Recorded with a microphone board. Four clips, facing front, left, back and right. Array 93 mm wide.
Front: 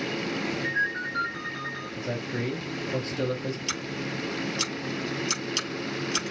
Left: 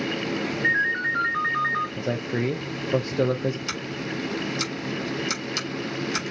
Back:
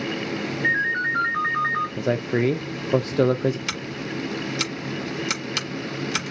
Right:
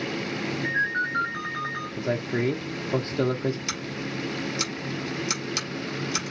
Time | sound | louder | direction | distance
0.6 | a ringtone | left 3 dB, back 9 dB | 140° left | 2.5 m
2.0 | a man speaking | even, back 6 dB | 175° left | 0.6 m
3.7 | scissors | left 2 dB, back 2 dB | 175° right | 3.5 m